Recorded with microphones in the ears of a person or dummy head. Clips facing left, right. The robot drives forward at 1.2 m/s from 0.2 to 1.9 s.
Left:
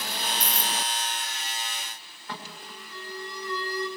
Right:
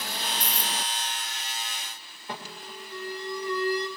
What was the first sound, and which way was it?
Keys jangling, 65° left (ahead or behind).